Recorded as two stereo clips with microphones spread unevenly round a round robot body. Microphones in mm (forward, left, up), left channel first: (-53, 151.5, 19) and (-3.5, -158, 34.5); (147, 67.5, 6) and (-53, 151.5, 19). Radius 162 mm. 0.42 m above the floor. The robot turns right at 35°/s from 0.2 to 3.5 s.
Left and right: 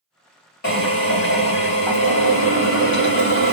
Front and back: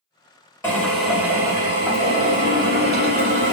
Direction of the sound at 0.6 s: 50° left.